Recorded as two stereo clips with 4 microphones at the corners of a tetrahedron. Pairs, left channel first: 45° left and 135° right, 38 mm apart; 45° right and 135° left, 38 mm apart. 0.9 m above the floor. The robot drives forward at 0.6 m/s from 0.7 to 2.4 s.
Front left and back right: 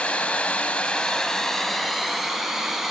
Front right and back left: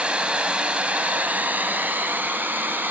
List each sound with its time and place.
0.0 s running water: 85° left, 1.0 m; by 2.9 s 145° left, 1.4 m